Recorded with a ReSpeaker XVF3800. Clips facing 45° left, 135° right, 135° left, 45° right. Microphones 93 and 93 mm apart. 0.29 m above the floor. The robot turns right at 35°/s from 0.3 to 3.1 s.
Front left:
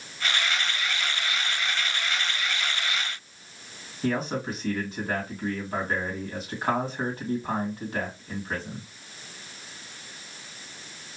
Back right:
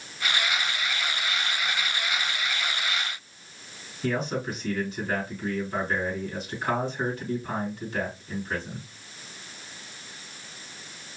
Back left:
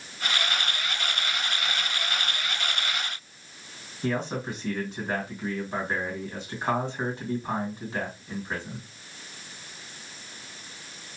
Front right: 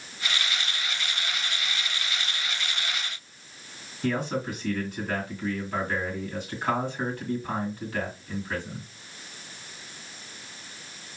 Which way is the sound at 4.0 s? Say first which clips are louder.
Even, front right 1 dB; 75° left.